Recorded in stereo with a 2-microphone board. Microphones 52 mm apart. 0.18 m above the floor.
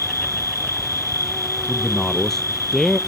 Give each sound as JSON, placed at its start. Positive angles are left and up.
{"t": 0.0, "sound": "an insect", "side_deg": 75}
{"t": 1.7, "sound": "a man speaking", "side_deg": 10}